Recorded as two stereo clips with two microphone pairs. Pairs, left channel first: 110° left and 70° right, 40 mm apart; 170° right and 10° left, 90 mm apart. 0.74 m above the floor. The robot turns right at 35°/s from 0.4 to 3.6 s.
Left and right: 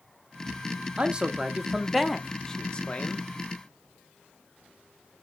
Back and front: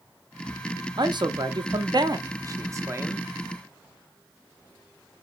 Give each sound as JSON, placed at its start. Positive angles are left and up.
{"t": 1.0, "sound": "a man speaking", "azimuth_deg": -10, "distance_m": 0.7}